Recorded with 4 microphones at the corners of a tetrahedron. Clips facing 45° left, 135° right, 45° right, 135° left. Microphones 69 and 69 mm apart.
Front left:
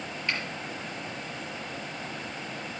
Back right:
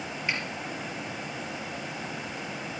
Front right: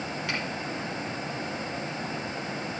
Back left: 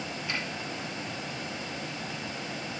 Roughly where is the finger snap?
Ahead right.